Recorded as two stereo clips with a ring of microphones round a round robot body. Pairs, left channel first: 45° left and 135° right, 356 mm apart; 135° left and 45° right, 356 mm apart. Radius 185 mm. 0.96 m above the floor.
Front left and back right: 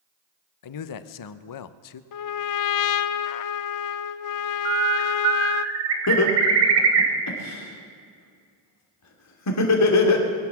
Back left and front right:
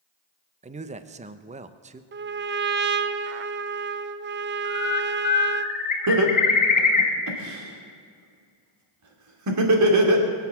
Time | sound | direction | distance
0.6 | a man speaking | 25° left | 0.8 m
2.1 | a trumpet | 15° left | 0.6 m
4.7 | a bird | 155° right | 2 m
6.1 | laughter | straight ahead | 3 m